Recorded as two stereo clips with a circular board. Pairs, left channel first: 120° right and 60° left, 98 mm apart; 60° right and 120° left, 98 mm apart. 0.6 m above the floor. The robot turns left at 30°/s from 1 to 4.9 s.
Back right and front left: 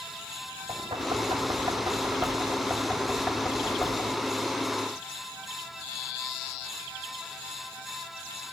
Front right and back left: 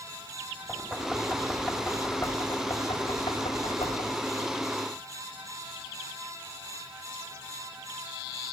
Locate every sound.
0.7 s knocking: 45° left, 2.5 m; by 4.2 s 50° right, 2.5 m